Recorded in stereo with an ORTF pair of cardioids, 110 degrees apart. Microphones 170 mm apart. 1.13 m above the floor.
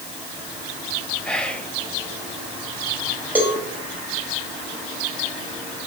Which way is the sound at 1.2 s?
5° left.